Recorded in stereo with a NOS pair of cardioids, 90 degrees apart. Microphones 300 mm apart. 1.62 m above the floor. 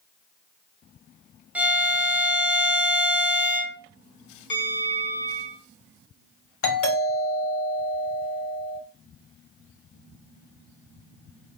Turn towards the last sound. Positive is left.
turn(degrees=45)